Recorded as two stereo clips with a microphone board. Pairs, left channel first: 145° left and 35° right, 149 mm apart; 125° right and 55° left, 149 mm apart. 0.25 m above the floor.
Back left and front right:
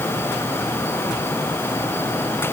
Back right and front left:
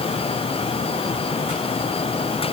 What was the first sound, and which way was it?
Only background noise.